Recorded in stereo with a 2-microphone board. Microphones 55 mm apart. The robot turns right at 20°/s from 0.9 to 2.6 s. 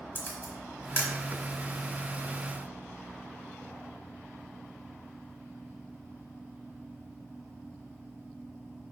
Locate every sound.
0.1 s a camera shutter: 35° left (ahead or behind), 1.3 m; by 1.1 s 40° left (ahead or behind), 1.3 m